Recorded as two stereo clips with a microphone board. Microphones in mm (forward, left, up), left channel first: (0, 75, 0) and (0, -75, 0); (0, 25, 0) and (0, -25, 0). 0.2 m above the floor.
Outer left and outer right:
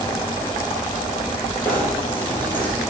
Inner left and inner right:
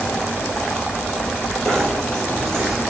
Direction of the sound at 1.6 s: 10° left (ahead or behind).